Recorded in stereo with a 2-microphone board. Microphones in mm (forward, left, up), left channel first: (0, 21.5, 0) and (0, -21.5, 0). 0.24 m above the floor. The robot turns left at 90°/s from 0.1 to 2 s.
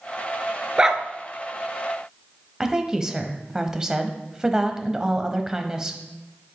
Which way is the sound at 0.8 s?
20° right (ahead or behind).